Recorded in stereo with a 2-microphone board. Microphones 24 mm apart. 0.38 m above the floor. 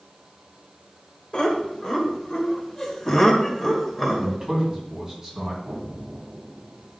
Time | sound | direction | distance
1.3 | laughter | 40° left (ahead or behind) | 1.8 m
4.2 | a man speaking | 20° right (ahead or behind) | 3.5 m
5.6 | an explosion | 45° right (ahead or behind) | 3.5 m